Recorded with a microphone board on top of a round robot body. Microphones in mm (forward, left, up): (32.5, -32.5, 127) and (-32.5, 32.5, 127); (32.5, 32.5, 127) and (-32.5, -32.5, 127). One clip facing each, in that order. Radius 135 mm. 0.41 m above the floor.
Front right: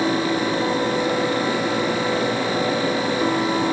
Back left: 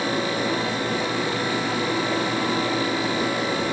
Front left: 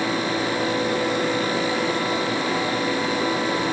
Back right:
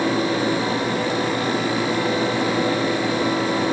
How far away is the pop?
No pop in this recording.